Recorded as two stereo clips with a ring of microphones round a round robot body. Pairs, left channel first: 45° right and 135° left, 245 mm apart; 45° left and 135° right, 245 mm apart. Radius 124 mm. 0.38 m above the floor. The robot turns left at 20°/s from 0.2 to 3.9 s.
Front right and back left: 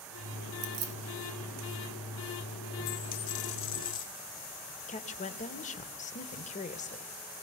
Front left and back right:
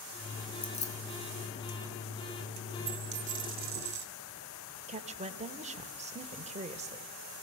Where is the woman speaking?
90° right, 1.2 m.